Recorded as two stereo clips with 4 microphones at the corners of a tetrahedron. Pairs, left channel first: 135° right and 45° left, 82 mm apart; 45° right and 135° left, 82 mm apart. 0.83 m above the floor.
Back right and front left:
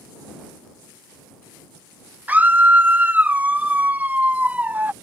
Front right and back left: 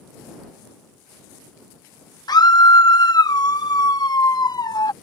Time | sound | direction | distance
2.3 | a scream | 25° right | ?